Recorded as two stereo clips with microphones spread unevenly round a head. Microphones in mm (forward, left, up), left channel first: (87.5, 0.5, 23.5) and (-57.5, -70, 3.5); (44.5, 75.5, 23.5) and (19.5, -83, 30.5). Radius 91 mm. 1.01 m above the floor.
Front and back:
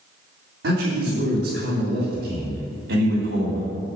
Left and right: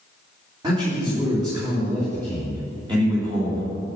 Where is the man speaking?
165° right, 2.5 m.